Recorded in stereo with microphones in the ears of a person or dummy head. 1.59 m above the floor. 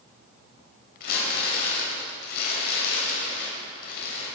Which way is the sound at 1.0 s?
65° left (ahead or behind).